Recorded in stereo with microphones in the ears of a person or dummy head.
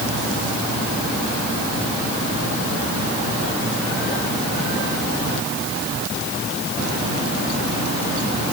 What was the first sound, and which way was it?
Only background noise.